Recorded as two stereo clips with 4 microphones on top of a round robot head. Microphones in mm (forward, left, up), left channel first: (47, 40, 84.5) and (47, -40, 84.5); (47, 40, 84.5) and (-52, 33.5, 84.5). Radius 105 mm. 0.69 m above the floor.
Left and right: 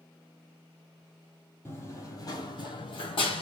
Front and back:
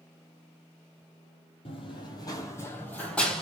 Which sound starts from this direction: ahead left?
Running footsteps, at 1.6 s.